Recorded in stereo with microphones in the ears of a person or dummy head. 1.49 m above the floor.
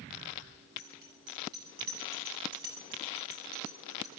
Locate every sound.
0.8 s a bicycle bell: 55° right (ahead or behind), 10 m; by 4.1 s 50° right (ahead or behind), 7 m